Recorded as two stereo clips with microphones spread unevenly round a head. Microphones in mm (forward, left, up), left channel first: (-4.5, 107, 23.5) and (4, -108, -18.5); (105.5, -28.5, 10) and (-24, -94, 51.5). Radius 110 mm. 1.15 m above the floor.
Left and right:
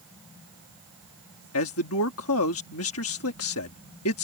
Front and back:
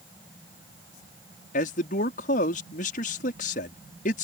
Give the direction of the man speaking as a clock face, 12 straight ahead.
10 o'clock.